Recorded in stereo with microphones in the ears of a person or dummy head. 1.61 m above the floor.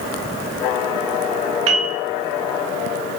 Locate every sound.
1.7 s a piano: 35° right (ahead or behind), 1.0 m